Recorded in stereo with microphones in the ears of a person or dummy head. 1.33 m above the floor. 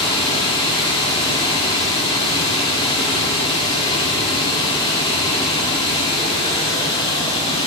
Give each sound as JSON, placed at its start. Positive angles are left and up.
{"t": 0.0, "sound": "running water", "side_deg": 30, "distance_m": 1.9}